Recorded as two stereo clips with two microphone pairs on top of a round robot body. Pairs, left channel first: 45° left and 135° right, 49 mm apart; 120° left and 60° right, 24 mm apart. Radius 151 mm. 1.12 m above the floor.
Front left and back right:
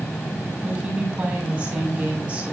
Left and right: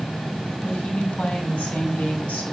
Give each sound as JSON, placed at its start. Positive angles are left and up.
{"t": 0.6, "sound": "a woman speaking", "azimuth_deg": 155, "distance_m": 7.5}